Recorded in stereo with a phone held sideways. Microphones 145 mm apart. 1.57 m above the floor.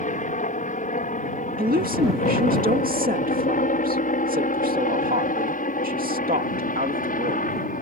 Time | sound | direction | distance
0.0 | a helicopter | 60° left (ahead or behind) | ?
1.6 | a woman speaking | 85° right | ?